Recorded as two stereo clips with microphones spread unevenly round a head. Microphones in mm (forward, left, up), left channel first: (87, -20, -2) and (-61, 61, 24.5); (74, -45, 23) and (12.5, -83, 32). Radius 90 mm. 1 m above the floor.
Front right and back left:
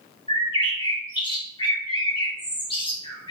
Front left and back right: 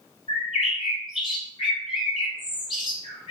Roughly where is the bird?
Ahead left.